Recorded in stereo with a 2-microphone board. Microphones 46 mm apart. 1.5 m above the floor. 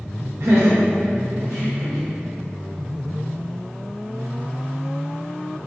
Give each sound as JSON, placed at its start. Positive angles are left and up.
{"t": 0.4, "sound": "laughter", "side_deg": -65, "distance_m": 0.7}